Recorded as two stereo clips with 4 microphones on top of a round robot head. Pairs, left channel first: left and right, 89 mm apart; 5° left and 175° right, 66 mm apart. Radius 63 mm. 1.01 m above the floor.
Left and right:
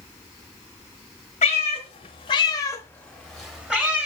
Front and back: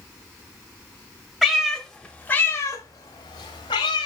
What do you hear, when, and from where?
1.4 s a cat meowing: 105° left, 1.2 m; by 4.1 s 20° right, 1.3 m